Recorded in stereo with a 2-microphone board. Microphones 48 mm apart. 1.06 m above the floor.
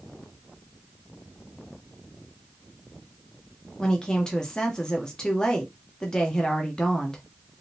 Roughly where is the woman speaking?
Centre.